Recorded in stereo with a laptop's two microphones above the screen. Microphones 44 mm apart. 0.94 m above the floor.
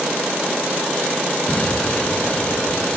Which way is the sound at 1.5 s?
30° left (ahead or behind).